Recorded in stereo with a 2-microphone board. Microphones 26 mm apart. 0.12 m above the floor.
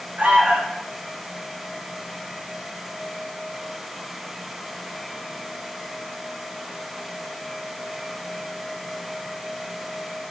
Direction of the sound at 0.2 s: 75° right (ahead or behind).